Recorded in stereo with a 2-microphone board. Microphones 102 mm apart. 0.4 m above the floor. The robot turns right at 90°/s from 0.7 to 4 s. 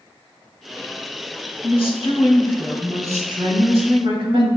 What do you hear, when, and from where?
1.6 s a woman speaking: 80° left, 3 m; by 4.5 s 65° right, 3 m